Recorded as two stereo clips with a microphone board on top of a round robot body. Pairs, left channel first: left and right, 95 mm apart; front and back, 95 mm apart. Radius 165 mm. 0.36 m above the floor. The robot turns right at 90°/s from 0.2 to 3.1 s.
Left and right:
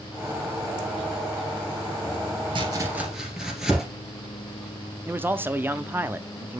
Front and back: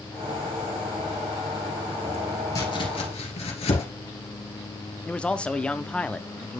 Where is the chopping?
55° right, 2 m; by 3.8 s 5° right, 2 m.